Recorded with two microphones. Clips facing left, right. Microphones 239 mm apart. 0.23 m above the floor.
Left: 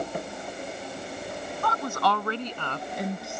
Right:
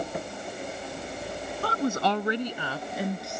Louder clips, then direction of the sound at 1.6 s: Right 3 dB; 35° right (ahead or behind).